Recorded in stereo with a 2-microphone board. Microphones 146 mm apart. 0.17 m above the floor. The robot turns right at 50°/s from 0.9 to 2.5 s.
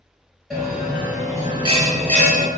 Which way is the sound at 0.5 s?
Straight behind.